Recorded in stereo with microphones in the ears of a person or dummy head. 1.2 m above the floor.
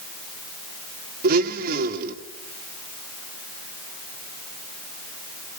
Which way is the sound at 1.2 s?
60° right (ahead or behind).